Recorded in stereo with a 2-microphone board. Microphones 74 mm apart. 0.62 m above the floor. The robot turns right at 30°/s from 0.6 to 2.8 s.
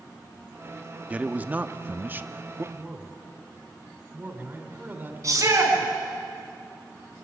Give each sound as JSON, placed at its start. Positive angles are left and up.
{"t": 1.1, "sound": "a man speaking", "side_deg": -20, "distance_m": 0.9}
{"t": 2.7, "sound": "a man speaking", "side_deg": -30, "distance_m": 2.5}
{"t": 5.2, "sound": "a shout", "side_deg": -45, "distance_m": 5.5}